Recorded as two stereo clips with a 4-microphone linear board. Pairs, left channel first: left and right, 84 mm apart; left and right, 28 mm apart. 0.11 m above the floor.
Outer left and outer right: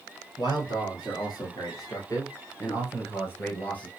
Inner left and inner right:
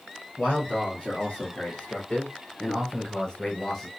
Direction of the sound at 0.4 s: 55° left (ahead or behind).